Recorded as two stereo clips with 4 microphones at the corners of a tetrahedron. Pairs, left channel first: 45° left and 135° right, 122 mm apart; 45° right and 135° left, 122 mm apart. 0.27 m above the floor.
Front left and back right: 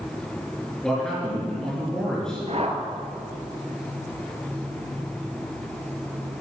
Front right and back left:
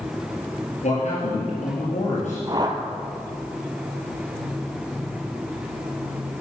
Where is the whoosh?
170° right, 1.4 m.